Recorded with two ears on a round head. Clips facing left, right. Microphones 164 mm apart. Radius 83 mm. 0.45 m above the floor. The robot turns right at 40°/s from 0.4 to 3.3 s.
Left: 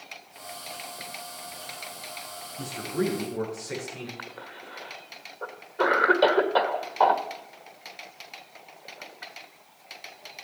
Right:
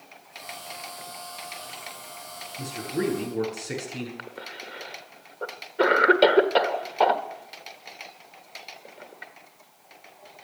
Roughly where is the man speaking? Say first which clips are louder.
Even; centre.